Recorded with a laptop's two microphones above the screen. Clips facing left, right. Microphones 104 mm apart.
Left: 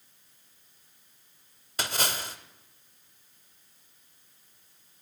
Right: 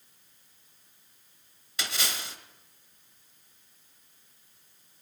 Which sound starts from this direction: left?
A splash, at 1.8 s.